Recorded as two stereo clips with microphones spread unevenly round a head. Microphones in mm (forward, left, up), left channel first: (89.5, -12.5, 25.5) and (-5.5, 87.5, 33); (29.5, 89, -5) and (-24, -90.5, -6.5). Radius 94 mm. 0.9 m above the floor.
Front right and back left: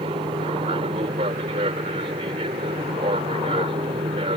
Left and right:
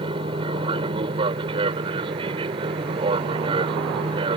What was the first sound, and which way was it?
An aircraft, 170° right.